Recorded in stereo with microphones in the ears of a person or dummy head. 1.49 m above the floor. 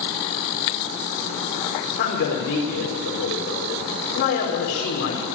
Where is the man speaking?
55° left (ahead or behind), 4.5 m.